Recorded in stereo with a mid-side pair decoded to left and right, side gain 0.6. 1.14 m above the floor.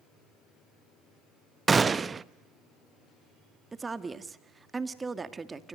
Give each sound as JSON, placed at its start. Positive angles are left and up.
{"t": 1.7, "sound": "a gunshot", "azimuth_deg": -25, "distance_m": 0.8}
{"t": 3.7, "sound": "a woman speaking", "azimuth_deg": -20, "distance_m": 1.8}